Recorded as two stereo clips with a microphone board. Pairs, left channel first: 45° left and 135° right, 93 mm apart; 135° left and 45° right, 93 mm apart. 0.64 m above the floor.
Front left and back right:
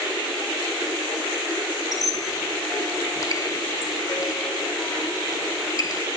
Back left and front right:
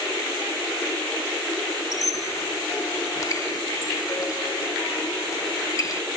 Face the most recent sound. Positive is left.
turn(degrees=90)